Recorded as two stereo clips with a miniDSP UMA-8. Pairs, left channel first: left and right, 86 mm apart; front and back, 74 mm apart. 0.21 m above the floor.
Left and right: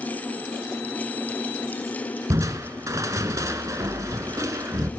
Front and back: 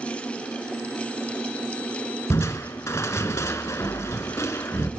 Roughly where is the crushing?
Ahead right.